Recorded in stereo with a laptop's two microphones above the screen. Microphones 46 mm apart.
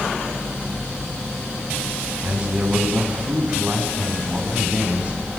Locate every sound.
2.2 s a man speaking: 30° right (ahead or behind), 10 m